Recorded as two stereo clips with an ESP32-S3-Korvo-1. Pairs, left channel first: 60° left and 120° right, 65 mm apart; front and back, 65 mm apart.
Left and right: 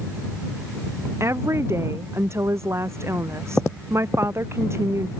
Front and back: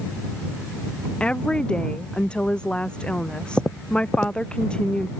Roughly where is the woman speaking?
Right.